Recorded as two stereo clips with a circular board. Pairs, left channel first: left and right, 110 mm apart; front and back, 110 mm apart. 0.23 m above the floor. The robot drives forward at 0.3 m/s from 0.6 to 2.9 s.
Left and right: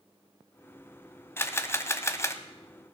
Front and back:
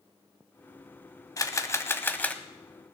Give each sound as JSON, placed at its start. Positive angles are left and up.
{"t": 1.4, "sound": "a camera shutter", "azimuth_deg": 35, "distance_m": 0.9}